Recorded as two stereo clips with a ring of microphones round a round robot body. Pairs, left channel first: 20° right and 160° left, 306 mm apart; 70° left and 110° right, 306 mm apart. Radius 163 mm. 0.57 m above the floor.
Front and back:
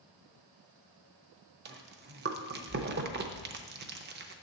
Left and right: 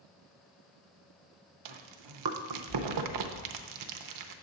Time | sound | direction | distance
1.6 | chewing | 140° right | 0.7 m